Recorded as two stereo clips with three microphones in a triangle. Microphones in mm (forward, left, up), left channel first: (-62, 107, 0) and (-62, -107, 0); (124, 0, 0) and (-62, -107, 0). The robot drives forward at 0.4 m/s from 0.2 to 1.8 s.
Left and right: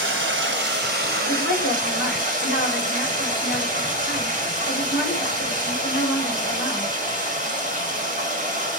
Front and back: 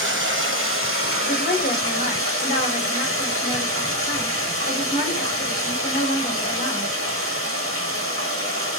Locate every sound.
0.0 s running water: 120° right, 0.9 m; by 8.8 s 145° right, 1.3 m
1.2 s a woman speaking: 75° left, 2.5 m; by 6.9 s 80° left, 2.5 m